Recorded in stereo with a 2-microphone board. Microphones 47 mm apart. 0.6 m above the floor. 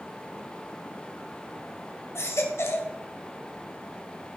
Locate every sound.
2.1 s a baby crying: 75° left (ahead or behind), 2 m